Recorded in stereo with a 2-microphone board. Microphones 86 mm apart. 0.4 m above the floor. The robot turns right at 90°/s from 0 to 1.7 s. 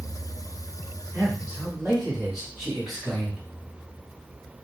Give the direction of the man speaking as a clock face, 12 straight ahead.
2 o'clock.